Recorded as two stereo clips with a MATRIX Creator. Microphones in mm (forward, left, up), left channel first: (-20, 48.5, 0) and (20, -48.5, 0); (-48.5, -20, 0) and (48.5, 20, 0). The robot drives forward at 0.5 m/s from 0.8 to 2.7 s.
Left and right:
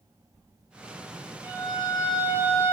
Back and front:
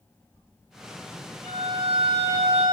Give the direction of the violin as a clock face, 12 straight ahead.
12 o'clock.